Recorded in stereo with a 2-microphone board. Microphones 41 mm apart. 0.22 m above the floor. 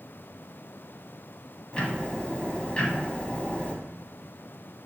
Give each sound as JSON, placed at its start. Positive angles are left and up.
{"t": 1.7, "sound": "ticking", "side_deg": 25, "distance_m": 0.8}